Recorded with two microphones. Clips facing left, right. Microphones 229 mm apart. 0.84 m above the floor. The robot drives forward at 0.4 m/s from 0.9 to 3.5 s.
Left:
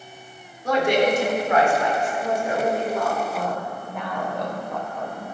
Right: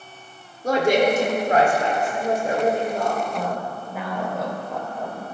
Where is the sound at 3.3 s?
5° right (ahead or behind), 3 m.